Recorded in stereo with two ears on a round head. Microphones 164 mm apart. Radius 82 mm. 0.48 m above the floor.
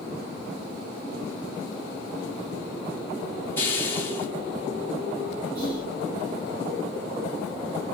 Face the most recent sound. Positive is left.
turn(degrees=-60)  # may be behind; listen again after turning